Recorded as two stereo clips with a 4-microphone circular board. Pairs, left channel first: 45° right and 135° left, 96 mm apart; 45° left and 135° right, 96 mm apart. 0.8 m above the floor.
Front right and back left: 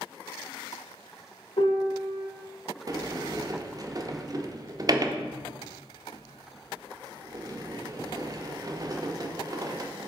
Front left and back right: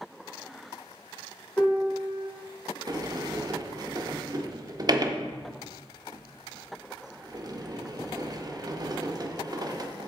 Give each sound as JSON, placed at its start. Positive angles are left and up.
{"t": 1.6, "sound": "a piano", "azimuth_deg": -35, "distance_m": 1.3}
{"t": 2.9, "sound": "a sliding door", "azimuth_deg": 180, "distance_m": 0.5}